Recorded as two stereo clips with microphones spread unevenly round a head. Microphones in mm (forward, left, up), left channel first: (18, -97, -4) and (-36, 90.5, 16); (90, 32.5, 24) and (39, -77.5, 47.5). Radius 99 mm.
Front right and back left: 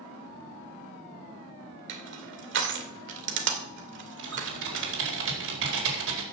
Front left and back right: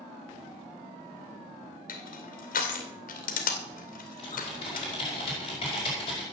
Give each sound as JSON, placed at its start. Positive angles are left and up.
{"t": 1.9, "sound": "crushing", "azimuth_deg": 75, "distance_m": 2.5}
{"t": 4.2, "sound": "typing on a keyboard", "azimuth_deg": 130, "distance_m": 4.5}